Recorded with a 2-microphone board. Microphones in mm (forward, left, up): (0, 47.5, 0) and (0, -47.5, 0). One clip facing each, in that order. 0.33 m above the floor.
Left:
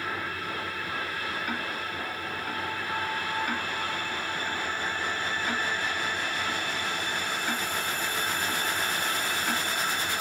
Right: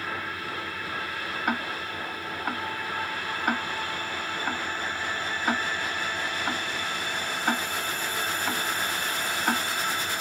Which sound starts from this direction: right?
Ticking, at 1.5 s.